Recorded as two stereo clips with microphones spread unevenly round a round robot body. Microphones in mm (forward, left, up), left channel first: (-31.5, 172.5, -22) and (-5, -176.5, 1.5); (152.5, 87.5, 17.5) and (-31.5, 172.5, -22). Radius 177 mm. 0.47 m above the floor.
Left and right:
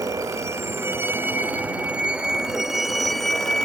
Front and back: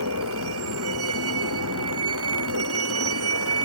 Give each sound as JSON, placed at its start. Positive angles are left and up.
{"t": 0.0, "sound": "a vehicle", "azimuth_deg": -165}